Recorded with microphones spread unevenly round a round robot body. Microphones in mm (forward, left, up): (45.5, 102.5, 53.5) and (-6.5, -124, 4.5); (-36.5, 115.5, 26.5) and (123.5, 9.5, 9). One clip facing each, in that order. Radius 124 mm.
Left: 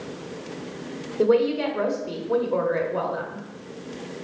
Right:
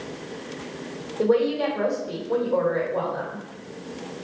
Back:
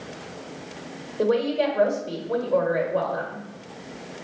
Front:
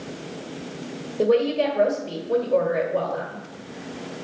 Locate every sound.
1.2 s a woman speaking: 30° left, 1.3 m